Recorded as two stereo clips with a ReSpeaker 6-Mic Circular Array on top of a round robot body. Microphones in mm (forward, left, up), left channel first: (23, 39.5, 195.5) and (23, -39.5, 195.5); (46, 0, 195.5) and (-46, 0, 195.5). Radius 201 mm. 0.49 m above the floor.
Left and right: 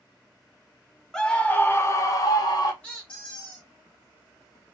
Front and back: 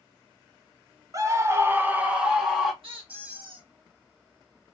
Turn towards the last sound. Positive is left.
turn(degrees=160)